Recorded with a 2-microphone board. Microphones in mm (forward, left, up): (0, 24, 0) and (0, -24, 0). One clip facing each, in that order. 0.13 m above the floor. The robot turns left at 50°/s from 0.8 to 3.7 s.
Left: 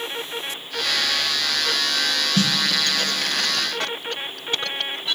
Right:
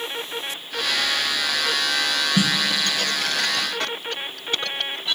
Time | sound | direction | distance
2.4 | a snare drum | 15° right (ahead or behind) | 0.5 m